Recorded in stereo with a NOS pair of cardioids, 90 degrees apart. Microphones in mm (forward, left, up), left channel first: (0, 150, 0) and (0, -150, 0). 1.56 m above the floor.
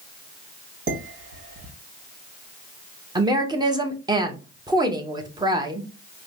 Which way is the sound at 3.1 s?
15° right.